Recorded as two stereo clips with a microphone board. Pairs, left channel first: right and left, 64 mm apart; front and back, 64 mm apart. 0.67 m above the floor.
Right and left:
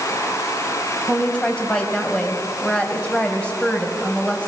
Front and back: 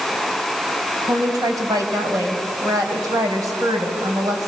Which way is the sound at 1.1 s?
165° right.